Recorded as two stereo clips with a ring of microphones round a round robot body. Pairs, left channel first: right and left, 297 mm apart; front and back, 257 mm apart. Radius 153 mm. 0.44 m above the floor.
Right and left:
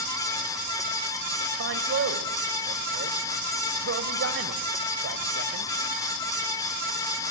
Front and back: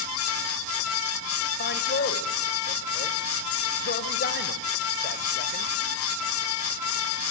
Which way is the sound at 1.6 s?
45° left.